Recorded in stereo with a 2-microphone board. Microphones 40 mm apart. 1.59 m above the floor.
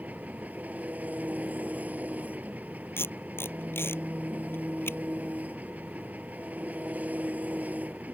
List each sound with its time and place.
0.0 s an engine running: 45° right (ahead or behind)
3.0 s tape being pulled: 70° left (ahead or behind)